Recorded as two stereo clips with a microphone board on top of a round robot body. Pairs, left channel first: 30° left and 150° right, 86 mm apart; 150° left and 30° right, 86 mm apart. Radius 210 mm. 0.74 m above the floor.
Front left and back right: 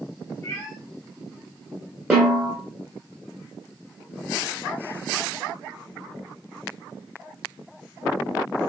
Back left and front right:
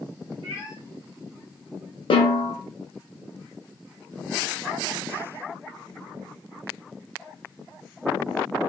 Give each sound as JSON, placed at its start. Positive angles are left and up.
{"t": 0.4, "sound": "a cat meowing", "azimuth_deg": -35, "distance_m": 1.2}
{"t": 2.1, "sound": "a snare drum", "azimuth_deg": 135, "distance_m": 0.5}